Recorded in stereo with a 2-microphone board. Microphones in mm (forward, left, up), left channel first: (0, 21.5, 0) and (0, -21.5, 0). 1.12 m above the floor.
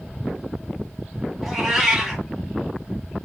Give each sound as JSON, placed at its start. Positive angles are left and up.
{"t": 1.4, "sound": "a cat meowing", "side_deg": -5, "distance_m": 1.3}